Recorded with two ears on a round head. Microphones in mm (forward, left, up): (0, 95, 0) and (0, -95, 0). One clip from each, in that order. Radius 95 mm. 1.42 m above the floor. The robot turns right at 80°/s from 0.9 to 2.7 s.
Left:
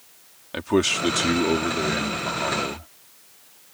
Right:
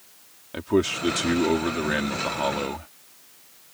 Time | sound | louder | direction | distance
0.5 | a man speaking | left 2 dB | 150° left | ?